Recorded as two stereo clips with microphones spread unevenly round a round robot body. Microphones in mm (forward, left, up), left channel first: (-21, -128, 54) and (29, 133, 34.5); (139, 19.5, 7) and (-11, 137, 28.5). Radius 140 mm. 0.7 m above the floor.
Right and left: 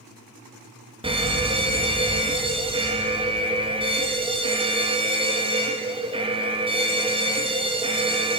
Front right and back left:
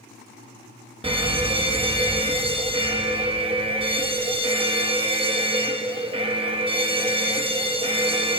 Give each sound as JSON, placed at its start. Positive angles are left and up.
{"t": 1.0, "sound": "a fire alarm", "azimuth_deg": 110, "distance_m": 1.9}